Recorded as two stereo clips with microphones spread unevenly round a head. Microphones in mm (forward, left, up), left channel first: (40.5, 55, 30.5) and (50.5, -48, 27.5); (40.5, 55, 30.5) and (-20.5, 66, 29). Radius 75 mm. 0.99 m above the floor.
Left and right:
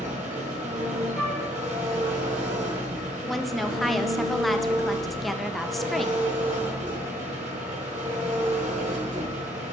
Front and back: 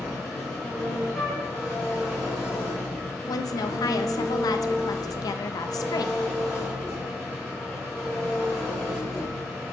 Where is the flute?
85° left, 2.0 m.